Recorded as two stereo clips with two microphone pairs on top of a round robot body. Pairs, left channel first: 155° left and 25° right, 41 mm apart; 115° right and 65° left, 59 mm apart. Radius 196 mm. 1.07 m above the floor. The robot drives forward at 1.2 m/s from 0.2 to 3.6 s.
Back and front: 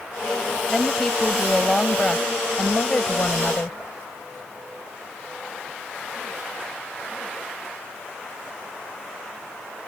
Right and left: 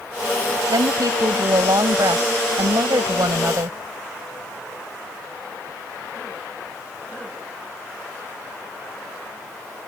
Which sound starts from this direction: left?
A woman speaking, at 0.7 s.